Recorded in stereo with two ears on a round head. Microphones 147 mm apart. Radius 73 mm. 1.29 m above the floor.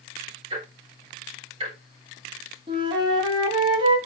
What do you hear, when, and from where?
0.5 s ticking: 35° right (ahead or behind), 3 m
2.7 s a flute: 30° right (ahead or behind), 2.5 m